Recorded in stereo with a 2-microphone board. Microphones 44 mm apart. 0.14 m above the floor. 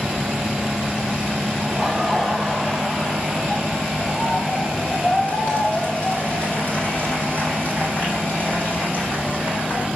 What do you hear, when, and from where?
1.6 s laughter: 5° left (ahead or behind), 4 m; by 9.9 s 55° left (ahead or behind), 6.5 m